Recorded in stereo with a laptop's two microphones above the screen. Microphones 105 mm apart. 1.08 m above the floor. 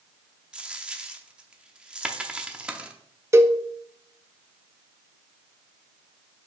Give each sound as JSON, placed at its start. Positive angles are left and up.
{"t": 0.5, "sound": "a dropped coin", "side_deg": -10, "distance_m": 0.6}
{"t": 3.3, "sound": "a cowbell", "side_deg": -25, "distance_m": 0.6}